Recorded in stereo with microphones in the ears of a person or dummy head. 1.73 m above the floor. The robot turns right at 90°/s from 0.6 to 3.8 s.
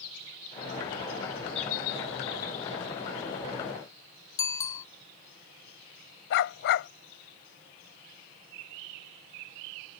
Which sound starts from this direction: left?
A dog barking, at 6.3 s.